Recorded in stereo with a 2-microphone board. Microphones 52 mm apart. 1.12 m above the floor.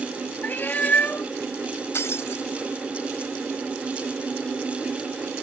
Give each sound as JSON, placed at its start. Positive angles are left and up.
{"t": 0.4, "sound": "a cat meowing", "side_deg": 40}
{"t": 1.9, "sound": "breaking glass", "side_deg": 55}